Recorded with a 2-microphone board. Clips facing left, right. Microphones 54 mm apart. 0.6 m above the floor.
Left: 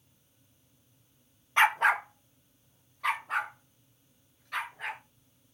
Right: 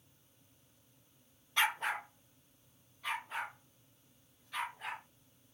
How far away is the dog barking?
About 0.6 m.